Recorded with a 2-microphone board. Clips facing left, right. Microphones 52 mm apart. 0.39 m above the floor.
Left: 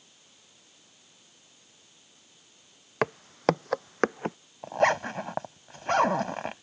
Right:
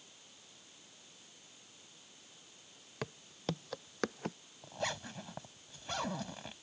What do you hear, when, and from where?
3.0 s footsteps: 60° left (ahead or behind); by 4.4 s 30° left (ahead or behind)
4.6 s a zipper: 55° left (ahead or behind)